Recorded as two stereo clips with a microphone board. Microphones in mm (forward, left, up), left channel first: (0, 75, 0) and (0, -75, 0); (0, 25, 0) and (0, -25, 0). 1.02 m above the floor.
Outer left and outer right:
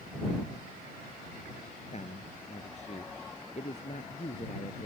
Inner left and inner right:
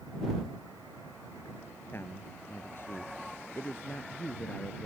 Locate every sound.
1.9 s a man speaking: 50° left (ahead or behind)